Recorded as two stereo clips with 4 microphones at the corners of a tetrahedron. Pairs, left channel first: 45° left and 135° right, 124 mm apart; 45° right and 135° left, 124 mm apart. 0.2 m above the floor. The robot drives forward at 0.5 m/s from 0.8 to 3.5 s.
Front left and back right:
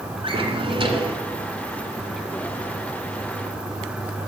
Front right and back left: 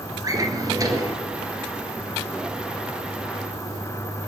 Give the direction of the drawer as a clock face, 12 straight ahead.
6 o'clock.